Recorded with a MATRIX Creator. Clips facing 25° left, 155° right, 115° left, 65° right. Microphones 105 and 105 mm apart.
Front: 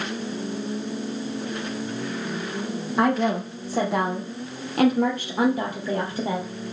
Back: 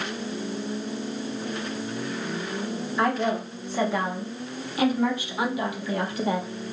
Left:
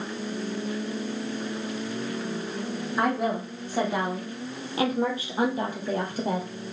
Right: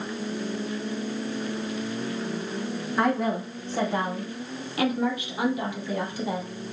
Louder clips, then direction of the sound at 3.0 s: Front 3 dB, right 1 dB; 25° left.